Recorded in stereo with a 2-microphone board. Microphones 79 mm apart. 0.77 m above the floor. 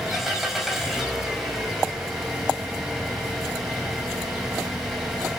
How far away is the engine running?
About 4.5 m.